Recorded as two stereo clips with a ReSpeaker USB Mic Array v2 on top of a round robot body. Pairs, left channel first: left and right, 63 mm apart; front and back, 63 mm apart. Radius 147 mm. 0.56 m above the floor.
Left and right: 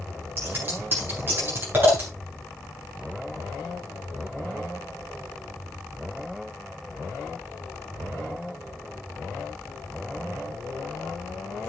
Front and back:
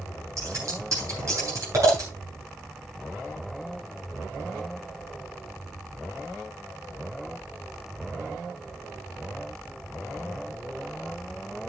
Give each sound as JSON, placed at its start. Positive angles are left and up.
{"t": 0.4, "sound": "scissors", "azimuth_deg": -145, "distance_m": 9.5}